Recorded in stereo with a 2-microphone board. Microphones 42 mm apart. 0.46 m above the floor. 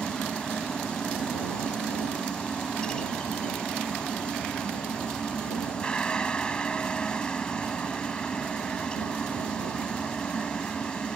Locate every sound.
0.0 s a helicopter: 20° left (ahead or behind)